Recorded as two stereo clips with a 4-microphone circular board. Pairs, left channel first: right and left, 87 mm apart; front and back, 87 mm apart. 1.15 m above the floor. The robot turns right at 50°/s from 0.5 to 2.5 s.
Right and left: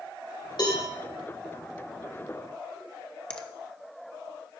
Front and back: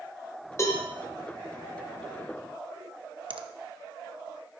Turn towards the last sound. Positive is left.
turn(degrees=-170)